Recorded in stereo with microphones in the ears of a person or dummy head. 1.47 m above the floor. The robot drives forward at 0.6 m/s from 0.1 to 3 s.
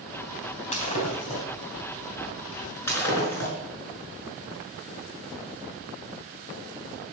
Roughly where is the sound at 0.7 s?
Left.